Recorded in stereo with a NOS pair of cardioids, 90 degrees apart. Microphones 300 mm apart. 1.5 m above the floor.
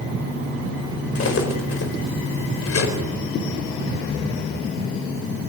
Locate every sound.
1.1 s cutlery clinking: 50° left, 4 m